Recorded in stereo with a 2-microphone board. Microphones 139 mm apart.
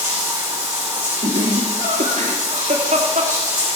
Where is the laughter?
80° right, 1.6 m.